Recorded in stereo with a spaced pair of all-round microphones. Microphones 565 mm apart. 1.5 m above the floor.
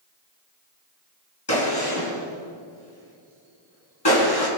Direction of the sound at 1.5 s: 45° left (ahead or behind).